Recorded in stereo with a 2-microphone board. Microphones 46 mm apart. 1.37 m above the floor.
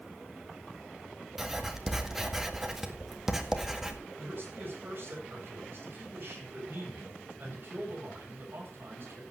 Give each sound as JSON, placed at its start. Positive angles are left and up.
{"t": 1.4, "sound": "writing", "side_deg": -10, "distance_m": 1.7}
{"t": 4.2, "sound": "a man speaking", "side_deg": -50, "distance_m": 8.5}